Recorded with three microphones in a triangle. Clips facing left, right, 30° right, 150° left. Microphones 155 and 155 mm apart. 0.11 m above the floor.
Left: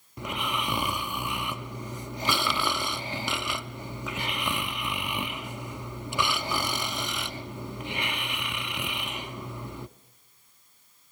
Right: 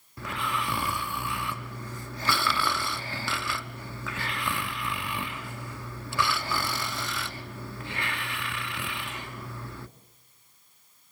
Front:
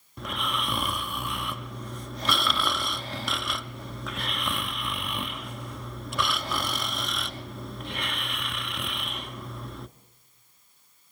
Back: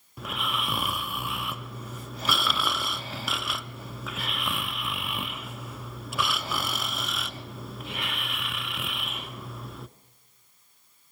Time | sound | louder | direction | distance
0.2 | snoring | even, front 1 dB | 70° left | 0.6 m